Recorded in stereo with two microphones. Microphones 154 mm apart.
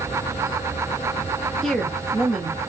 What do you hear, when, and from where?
1.6 s a woman speaking: centre (ahead or behind), 0.9 m